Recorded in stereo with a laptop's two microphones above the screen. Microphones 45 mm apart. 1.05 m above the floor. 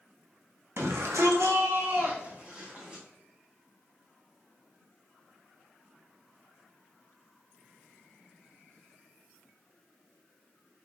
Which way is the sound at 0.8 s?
65° right (ahead or behind).